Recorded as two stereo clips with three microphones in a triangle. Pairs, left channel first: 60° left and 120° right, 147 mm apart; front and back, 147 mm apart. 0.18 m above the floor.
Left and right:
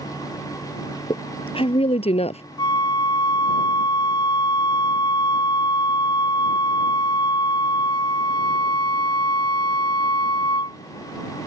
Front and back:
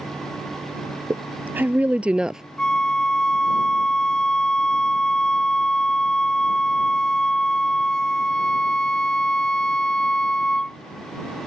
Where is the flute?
80° left.